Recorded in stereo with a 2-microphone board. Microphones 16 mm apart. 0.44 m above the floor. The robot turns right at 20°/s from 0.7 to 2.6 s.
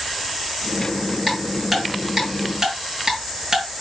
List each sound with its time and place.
1.3 s ticking: 5° left (ahead or behind), 4.5 m; by 3.6 s 25° right (ahead or behind), 4.5 m